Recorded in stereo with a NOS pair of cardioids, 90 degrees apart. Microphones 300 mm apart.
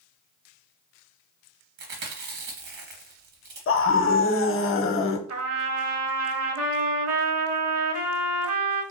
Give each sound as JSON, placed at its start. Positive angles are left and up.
{"t": 1.8, "sound": "chewing", "azimuth_deg": -60, "distance_m": 1.2}
{"t": 3.7, "sound": "a scream", "azimuth_deg": 45, "distance_m": 0.7}
{"t": 5.3, "sound": "a trumpet", "azimuth_deg": -50, "distance_m": 0.9}